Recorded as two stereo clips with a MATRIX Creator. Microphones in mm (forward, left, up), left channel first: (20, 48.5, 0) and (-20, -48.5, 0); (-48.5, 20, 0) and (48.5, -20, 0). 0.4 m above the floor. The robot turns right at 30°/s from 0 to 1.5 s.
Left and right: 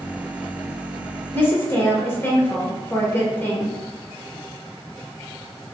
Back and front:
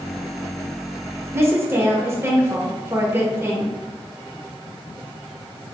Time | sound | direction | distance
1.3 | a woman speaking | 10° left | 1.2 m